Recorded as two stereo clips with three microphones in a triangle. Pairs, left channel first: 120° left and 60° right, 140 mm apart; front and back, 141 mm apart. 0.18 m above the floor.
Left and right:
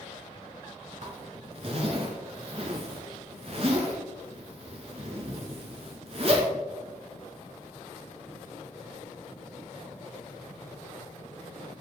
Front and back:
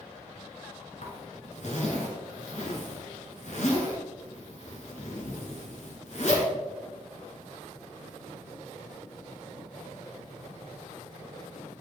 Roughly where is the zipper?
Ahead right.